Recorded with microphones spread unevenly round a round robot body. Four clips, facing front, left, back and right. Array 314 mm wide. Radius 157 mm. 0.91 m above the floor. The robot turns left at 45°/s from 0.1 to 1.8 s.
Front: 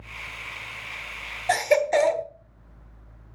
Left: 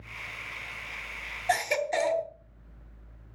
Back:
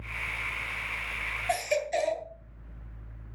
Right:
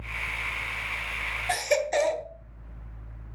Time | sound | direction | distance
1.5 | a baby crying | 10° right | 1.2 m